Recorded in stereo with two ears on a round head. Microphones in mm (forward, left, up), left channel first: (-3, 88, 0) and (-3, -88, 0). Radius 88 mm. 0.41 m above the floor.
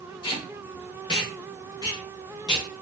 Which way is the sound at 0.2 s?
25° left (ahead or behind).